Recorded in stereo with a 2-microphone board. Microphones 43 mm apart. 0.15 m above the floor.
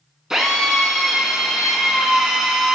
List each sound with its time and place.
0.3 s a drill: 15° right (ahead or behind), 0.5 m